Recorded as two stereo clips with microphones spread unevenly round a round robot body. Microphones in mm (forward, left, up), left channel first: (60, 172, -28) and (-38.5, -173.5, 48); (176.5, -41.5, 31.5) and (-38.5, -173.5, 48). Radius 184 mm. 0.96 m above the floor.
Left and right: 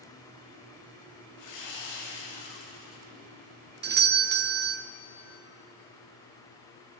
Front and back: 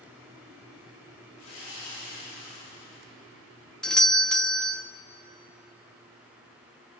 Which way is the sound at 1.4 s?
60° left.